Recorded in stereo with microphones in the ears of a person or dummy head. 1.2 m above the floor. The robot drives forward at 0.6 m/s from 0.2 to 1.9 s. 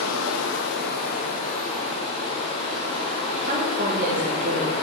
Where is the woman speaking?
45° right (ahead or behind), 1.1 m.